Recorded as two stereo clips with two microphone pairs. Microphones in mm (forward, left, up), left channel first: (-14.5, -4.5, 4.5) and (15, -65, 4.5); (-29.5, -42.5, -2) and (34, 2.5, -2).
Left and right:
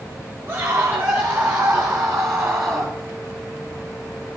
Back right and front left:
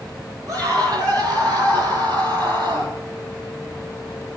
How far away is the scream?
About 9 m.